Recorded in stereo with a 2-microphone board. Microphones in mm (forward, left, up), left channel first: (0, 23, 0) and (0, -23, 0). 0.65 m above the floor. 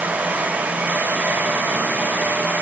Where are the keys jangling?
No keys jangling in this recording.